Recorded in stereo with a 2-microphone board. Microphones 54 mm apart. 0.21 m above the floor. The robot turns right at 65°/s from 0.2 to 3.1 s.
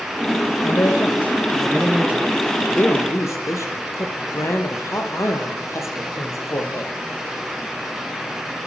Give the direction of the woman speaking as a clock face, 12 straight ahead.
11 o'clock.